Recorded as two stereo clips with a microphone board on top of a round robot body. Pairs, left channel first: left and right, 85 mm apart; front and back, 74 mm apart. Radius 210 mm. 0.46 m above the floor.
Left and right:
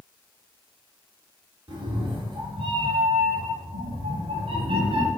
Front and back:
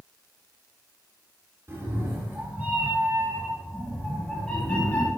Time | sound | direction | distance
1.7 | a cat meowing | 125° right | 2.5 m